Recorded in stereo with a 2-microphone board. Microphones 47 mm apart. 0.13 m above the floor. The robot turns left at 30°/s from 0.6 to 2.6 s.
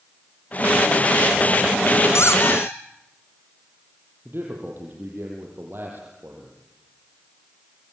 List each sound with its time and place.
2.1 s a squeak: 75° left (ahead or behind), 3 m; by 2.8 s 60° left (ahead or behind), 3 m
4.2 s a man speaking: 50° right (ahead or behind), 5.5 m